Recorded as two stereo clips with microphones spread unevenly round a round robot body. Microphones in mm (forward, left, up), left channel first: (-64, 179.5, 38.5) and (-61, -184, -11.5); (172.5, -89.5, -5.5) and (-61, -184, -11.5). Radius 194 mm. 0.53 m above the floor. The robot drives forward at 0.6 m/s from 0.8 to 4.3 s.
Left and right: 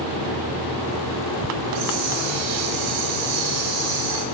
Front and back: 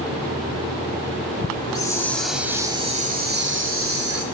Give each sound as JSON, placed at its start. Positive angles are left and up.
{"t": 1.6, "sound": "a hiss", "azimuth_deg": -50, "distance_m": 1.3}